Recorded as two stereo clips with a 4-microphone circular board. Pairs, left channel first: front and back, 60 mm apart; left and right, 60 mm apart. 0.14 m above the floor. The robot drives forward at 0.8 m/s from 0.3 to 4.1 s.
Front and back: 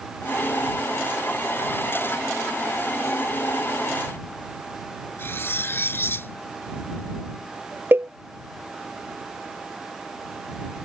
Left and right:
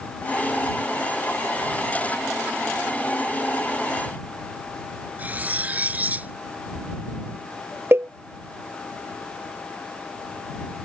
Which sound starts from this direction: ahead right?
Cutlery clinking, at 5.2 s.